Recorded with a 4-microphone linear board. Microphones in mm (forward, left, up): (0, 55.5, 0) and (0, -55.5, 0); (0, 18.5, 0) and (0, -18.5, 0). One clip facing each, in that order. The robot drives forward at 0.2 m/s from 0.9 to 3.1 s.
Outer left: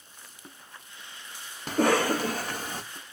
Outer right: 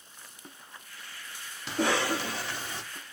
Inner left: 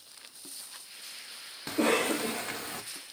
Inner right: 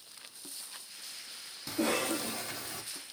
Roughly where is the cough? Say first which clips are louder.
Outer left 4 dB, inner left 5 dB; left.